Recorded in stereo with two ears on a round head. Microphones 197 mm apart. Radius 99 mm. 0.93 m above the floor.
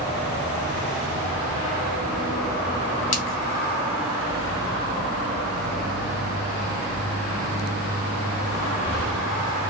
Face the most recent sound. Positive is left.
turn(degrees=35)  # may be behind; listen again after turning